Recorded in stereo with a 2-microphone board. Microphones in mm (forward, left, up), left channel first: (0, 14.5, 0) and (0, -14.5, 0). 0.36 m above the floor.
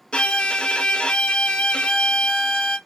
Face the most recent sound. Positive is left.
turn(degrees=40)  # may be behind; listen again after turning